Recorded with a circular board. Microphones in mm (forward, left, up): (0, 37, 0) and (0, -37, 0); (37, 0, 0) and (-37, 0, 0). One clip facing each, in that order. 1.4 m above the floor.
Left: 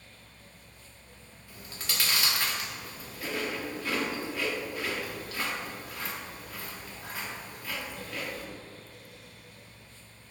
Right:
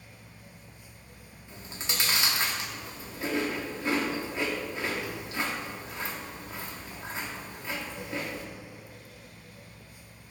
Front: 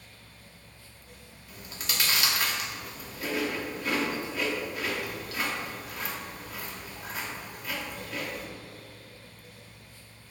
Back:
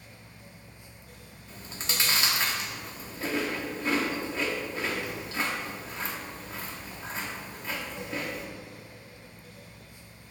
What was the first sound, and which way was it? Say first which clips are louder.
Chewing: right 2 dB, back 1 dB; 145° right.